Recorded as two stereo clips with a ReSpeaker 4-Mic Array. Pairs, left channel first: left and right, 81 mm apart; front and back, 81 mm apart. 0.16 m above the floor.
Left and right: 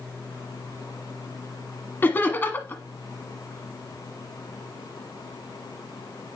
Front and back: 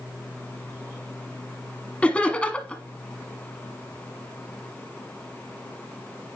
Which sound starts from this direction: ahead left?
Laughter, at 2.0 s.